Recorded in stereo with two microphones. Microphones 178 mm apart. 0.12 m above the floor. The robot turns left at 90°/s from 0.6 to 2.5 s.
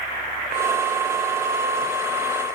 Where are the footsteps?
I don't hear footsteps.